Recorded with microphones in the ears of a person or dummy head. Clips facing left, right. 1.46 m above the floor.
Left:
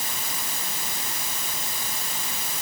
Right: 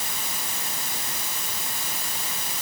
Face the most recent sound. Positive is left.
No sound to turn to.